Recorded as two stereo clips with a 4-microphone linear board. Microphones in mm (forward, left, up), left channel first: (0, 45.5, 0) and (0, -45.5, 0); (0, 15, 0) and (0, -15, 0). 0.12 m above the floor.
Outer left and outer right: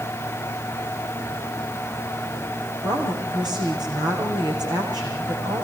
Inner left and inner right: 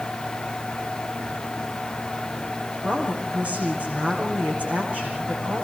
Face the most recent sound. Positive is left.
turn(degrees=-50)  # may be behind; listen again after turning